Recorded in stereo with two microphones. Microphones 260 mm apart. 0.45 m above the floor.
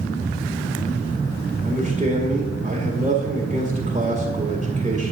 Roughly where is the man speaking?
Right.